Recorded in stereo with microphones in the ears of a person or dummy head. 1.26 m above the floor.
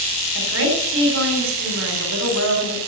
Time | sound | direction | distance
0.3 | a woman speaking | 75° right (ahead or behind) | 3.5 m